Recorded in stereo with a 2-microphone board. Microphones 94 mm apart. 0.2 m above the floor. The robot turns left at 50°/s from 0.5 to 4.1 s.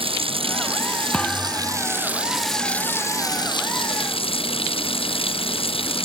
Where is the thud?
15° left; by 1.9 s 25° right.